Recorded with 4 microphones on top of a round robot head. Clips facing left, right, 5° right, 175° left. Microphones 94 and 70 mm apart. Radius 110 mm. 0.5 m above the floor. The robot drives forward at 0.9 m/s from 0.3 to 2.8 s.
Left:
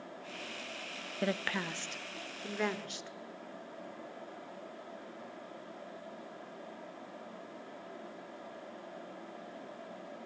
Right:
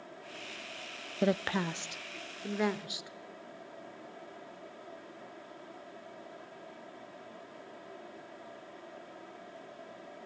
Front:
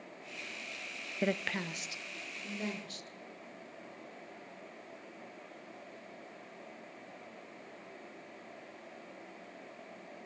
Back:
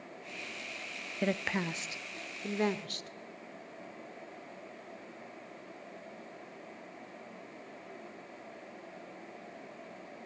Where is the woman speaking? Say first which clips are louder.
Right 5 dB, back 2 dB; 75° right, 0.7 m; by 3.1 s 170° right, 1.5 m.